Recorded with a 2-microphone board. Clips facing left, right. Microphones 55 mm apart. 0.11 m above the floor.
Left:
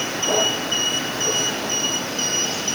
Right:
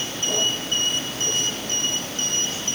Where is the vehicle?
65° left (ahead or behind); by 2.8 s 70° left (ahead or behind).